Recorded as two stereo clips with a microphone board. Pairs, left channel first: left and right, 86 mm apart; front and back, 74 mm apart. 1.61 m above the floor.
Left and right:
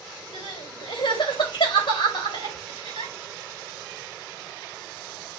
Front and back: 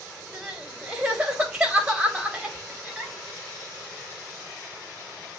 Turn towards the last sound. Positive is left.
turn(degrees=100)